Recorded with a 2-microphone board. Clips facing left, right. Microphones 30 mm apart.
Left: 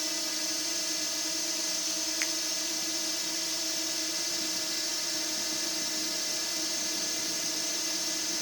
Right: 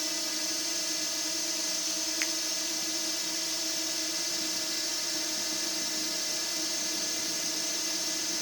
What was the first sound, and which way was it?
A drone, centre (ahead or behind).